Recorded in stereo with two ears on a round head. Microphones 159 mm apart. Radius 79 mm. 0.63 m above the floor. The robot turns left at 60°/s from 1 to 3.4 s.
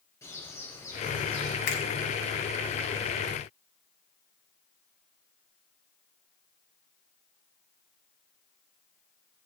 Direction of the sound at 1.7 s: 75° left (ahead or behind).